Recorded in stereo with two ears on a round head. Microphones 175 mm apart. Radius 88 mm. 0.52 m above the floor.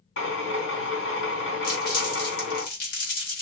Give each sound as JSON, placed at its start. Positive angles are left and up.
{"t": 0.2, "sound": "a drill", "side_deg": 75, "distance_m": 2.0}
{"t": 1.6, "sound": "crumpling", "side_deg": 50, "distance_m": 3.5}